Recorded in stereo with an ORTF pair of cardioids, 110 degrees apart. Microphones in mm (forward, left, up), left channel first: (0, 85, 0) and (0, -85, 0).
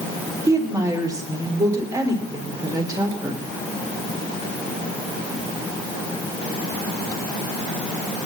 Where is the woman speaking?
20° right, 4 m.